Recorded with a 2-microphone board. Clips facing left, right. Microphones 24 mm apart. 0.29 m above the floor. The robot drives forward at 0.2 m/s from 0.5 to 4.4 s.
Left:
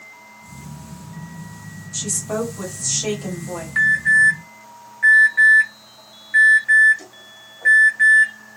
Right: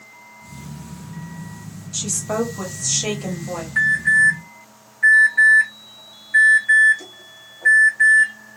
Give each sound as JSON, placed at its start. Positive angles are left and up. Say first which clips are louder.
{"t": 1.9, "sound": "a woman speaking", "louder": "right 1 dB", "side_deg": -25, "distance_m": 1.1}
{"t": 3.8, "sound": "an alarm", "louder": "left 1 dB", "side_deg": 15, "distance_m": 1.4}